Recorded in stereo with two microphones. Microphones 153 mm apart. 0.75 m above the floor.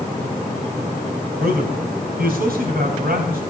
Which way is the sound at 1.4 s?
80° right.